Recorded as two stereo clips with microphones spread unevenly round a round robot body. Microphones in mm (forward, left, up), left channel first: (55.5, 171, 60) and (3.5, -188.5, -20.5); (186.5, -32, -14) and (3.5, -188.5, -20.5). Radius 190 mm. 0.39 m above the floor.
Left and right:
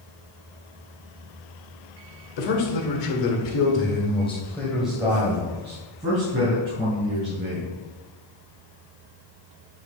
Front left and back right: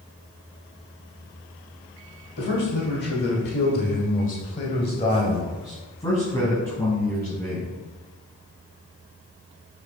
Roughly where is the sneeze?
I don't hear a sneeze.